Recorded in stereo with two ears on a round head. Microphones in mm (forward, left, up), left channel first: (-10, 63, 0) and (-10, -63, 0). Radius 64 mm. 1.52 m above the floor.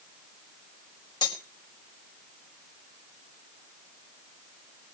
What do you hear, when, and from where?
1.2 s cutlery clinking: 30° left (ahead or behind), 5 m